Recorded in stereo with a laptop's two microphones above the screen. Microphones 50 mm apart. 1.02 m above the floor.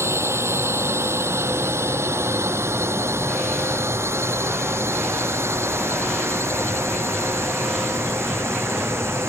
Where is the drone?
65° right (ahead or behind); by 9.3 s 60° right (ahead or behind).